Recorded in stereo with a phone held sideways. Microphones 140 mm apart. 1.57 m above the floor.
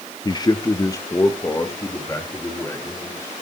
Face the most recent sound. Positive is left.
turn(degrees=20)  # may be behind; listen again after turning